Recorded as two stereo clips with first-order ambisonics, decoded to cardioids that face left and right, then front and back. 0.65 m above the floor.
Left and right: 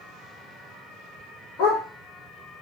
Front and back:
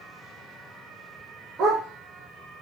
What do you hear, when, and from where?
1.6 s a dog barking: 125° left, 6.5 m